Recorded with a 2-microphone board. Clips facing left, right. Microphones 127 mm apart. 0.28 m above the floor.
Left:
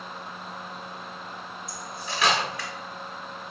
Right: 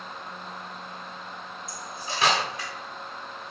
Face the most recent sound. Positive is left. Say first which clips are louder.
# even
turn(degrees=-30)  # may be behind; listen again after turning